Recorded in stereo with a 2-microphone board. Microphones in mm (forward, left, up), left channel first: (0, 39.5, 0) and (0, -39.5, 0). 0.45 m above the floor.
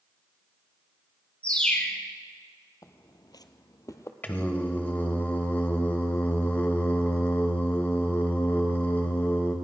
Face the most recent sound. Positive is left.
turn(degrees=20)  # may be behind; listen again after turning